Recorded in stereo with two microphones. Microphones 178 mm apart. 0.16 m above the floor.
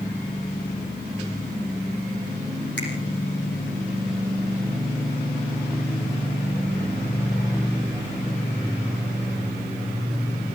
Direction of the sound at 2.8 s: 80° left.